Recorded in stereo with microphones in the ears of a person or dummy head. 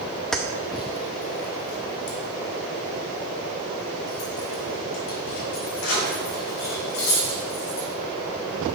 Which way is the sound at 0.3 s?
Centre (ahead or behind).